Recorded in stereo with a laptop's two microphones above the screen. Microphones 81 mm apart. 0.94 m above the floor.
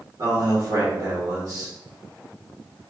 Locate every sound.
0.2 s a man speaking: 50° right (ahead or behind), 1.3 m